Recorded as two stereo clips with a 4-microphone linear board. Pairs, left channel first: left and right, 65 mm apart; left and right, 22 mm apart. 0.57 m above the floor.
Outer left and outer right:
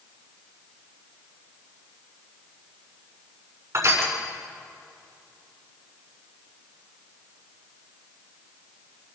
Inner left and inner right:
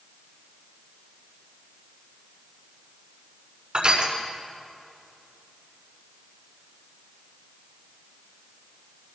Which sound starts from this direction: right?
Crushing, at 3.7 s.